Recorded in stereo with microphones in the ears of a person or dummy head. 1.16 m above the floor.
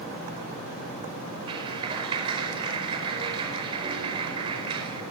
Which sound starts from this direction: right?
A clap, at 1.5 s.